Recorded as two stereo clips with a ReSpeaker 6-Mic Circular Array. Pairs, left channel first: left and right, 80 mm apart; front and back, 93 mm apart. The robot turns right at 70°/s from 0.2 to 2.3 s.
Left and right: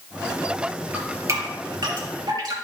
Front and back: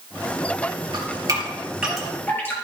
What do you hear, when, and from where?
0.9 s dripping: 160° right, 4.5 m; by 2.5 s 65° right, 4.5 m